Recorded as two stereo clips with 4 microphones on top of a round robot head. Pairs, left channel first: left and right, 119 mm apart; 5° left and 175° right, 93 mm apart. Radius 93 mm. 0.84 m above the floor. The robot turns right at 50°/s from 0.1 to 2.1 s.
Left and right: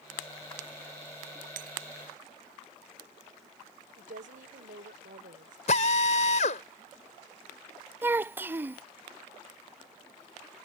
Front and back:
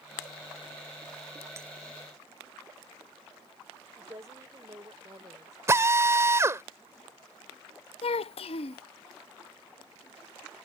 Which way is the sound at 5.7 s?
125° left.